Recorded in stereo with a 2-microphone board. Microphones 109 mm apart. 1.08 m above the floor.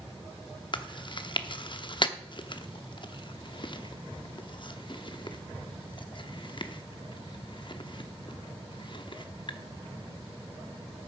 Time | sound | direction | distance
0.7 | chewing | 50° left (ahead or behind) | 0.7 m